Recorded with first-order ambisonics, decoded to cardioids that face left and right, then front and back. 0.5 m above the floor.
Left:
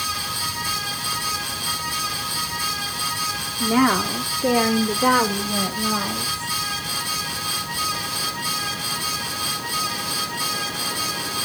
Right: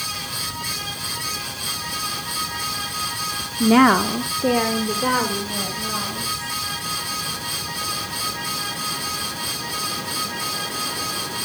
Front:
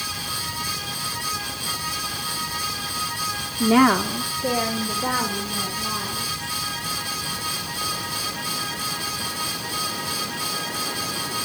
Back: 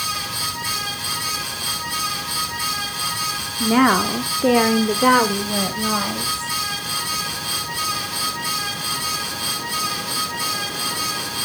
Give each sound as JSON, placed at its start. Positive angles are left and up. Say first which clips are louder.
{"t": 3.6, "sound": "a woman speaking", "louder": "right 4 dB, back 1 dB", "azimuth_deg": -70, "distance_m": 1.0}